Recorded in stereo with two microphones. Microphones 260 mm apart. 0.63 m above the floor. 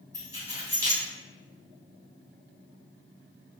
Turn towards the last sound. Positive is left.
turn(degrees=-10)  # may be behind; listen again after turning